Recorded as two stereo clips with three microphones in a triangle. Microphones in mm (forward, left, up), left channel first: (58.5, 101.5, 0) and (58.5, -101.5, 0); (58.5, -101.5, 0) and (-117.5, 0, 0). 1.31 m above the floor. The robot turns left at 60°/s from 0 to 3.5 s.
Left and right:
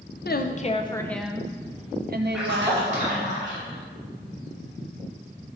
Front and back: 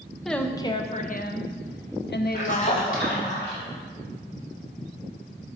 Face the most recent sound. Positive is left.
turn(degrees=-70)